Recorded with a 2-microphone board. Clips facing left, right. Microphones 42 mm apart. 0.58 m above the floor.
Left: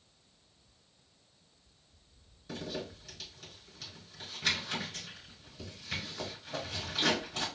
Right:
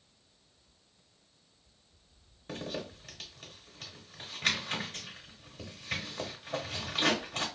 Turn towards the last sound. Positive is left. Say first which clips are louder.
# right 1 dB
turn(degrees=-50)  # may be behind; listen again after turning